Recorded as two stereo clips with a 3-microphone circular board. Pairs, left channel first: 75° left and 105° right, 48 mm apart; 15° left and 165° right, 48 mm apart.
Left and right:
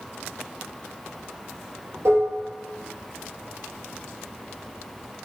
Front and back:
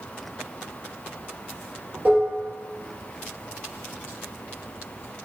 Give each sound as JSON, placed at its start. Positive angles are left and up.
{"t": 2.0, "sound": "dishes clattering", "azimuth_deg": -125, "distance_m": 2.0}